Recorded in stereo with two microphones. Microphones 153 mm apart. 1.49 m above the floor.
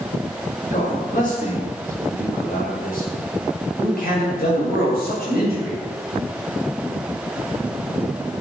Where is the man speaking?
55° left (ahead or behind), 7.5 m; by 5.8 s 80° left, 8 m.